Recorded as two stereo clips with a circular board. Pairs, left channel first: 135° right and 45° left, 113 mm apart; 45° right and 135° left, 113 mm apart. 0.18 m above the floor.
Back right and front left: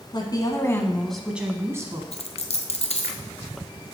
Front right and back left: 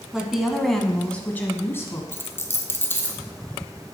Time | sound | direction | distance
0.1 | a woman speaking | 145° right | 1.3 m
2.1 | a dropped coin | 115° right | 1.3 m